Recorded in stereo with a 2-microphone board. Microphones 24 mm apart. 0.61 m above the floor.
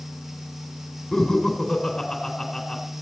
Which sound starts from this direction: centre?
Laughter, at 1.1 s.